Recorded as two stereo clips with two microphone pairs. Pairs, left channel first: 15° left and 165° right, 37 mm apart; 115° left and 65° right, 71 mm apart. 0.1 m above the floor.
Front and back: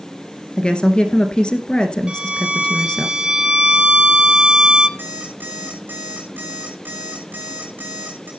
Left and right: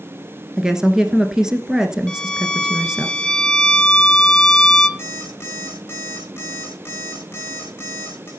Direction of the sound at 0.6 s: 5° left.